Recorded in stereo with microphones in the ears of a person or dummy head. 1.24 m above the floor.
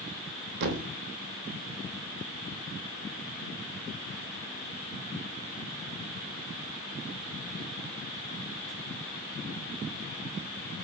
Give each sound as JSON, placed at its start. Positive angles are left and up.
{"t": 0.6, "sound": "a thud", "side_deg": -60, "distance_m": 0.9}